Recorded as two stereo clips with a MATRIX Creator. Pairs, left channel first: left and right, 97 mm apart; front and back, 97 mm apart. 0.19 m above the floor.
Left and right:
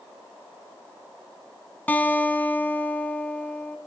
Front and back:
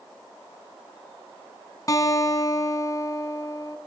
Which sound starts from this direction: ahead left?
A guitar, at 1.9 s.